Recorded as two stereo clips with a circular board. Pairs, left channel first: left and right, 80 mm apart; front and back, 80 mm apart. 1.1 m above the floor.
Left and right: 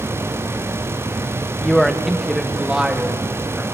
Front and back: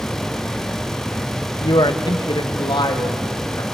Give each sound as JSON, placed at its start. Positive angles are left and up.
{"t": 1.6, "sound": "a man speaking", "azimuth_deg": 5, "distance_m": 1.2}